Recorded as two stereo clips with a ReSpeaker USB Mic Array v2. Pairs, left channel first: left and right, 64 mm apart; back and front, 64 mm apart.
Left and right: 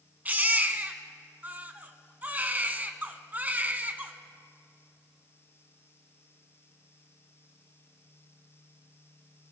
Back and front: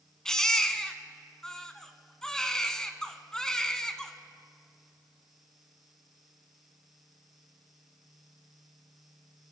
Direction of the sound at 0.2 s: 110° right.